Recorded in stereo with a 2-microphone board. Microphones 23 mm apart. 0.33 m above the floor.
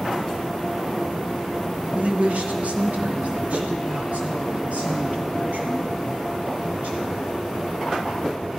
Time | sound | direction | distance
1.9 | a woman speaking | 60° right (ahead or behind) | 1.8 m